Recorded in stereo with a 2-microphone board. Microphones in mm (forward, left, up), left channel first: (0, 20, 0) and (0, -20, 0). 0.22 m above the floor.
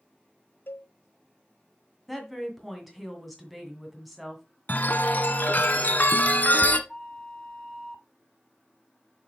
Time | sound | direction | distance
0.7 | a cowbell | 70° left (ahead or behind) | 0.5 m
2.1 | a woman speaking | centre (ahead or behind) | 1.9 m
4.7 | a chime | 50° left (ahead or behind) | 0.8 m
6.9 | a flute | 15° left (ahead or behind) | 0.9 m